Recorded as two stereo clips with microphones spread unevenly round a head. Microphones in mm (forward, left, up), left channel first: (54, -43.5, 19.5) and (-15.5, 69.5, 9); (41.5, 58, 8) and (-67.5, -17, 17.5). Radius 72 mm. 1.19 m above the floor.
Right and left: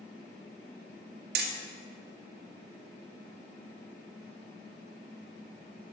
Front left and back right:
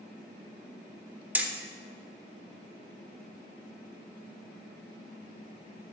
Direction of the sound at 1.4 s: 140° left.